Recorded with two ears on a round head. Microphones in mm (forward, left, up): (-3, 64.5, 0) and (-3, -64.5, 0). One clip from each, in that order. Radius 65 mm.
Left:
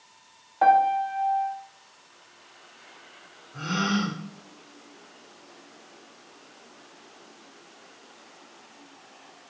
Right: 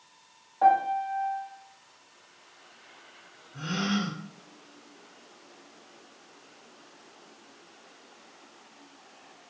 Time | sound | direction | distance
0.6 | a piano | 45° left (ahead or behind) | 0.5 m
3.5 | a gasp | 15° left (ahead or behind) | 0.9 m